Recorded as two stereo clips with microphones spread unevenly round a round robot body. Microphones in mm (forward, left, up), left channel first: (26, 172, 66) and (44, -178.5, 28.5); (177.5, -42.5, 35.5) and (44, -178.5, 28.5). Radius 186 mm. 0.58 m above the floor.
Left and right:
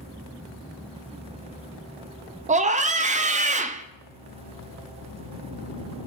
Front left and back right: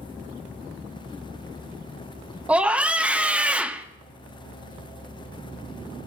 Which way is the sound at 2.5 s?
60° right.